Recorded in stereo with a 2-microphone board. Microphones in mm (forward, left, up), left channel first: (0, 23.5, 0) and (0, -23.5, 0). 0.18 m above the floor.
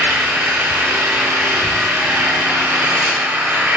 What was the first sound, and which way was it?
An engine running, 55° right (ahead or behind).